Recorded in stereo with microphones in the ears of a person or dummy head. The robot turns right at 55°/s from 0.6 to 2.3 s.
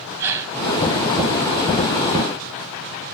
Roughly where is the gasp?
Centre.